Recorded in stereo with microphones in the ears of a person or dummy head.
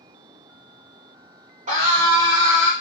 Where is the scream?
40° right (ahead or behind), 1.1 m; by 2.7 s 20° right (ahead or behind), 1.5 m.